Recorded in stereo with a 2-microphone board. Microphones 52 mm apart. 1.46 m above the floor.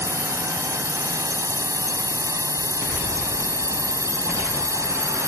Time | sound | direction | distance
0.0 | a drone | 85° right | ?